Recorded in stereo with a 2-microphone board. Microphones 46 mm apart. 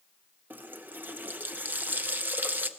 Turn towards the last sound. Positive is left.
turn(degrees=-45)  # may be behind; listen again after turning